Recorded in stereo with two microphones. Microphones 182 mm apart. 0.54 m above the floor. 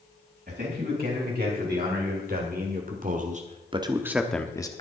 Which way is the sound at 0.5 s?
60° right (ahead or behind).